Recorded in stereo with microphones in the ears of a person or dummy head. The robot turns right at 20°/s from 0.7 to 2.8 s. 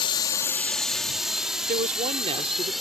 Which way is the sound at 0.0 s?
30° left (ahead or behind).